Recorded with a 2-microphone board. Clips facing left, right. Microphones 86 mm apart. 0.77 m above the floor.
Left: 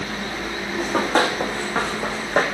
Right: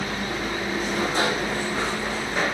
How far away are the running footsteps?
About 2.5 m.